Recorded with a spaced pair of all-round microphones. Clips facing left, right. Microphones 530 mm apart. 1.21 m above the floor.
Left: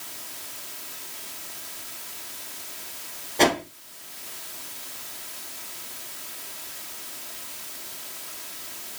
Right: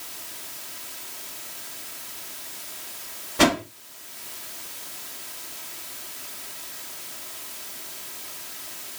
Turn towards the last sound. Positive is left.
turn(degrees=-35)  # may be behind; listen again after turning